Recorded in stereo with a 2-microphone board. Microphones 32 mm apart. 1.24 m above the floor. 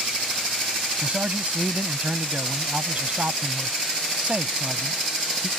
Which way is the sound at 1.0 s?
50° right (ahead or behind).